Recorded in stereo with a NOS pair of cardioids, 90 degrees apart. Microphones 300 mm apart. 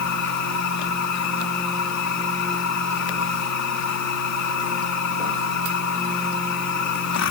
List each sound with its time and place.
0.0 s a machine running: 65° left